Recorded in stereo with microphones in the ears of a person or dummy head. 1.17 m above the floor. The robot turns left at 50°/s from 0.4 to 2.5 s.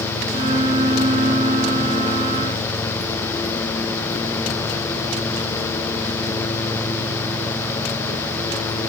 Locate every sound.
Only background noise.